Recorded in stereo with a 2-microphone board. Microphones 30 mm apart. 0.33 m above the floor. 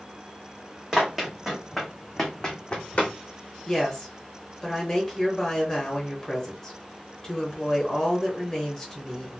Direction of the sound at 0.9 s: 25° right (ahead or behind).